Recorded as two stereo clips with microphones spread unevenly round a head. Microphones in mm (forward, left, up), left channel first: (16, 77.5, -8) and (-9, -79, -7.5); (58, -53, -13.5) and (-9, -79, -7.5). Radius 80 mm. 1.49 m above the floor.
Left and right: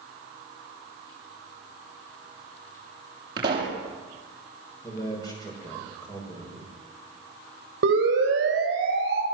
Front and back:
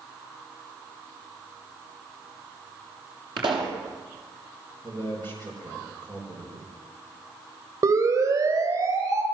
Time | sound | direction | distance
3.4 | a pop | 165° right | 7 m
4.8 | a man speaking | 150° left | 7 m
7.8 | a siren | 120° right | 6.5 m